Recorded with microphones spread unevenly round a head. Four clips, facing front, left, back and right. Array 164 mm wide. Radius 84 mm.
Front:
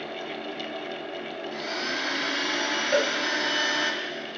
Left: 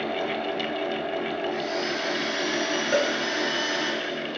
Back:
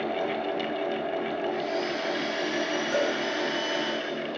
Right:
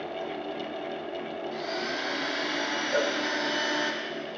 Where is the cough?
I don't hear a cough.